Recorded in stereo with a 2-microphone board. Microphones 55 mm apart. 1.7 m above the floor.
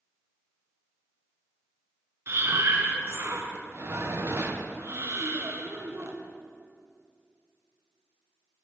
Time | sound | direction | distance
2.3 | breathing | 50° right (ahead or behind) | 0.8 m